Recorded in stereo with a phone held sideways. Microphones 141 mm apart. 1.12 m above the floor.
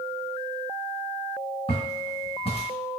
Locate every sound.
1.7 s footsteps: 40° left (ahead or behind), 1.7 m